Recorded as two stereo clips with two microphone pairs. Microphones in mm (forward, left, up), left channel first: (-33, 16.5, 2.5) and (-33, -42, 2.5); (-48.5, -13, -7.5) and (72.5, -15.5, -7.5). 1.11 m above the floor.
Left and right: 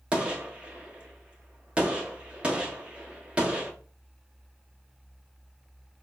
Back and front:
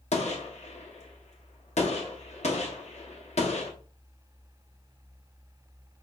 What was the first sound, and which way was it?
A gunshot, 160° right.